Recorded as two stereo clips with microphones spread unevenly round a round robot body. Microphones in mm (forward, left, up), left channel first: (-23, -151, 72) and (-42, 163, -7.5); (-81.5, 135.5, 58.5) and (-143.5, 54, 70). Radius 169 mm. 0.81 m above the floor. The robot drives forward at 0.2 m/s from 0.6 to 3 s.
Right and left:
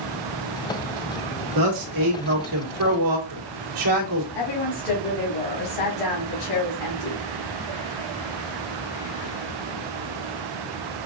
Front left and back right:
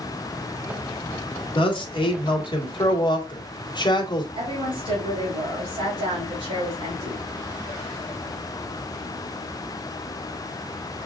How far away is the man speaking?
About 1.7 m.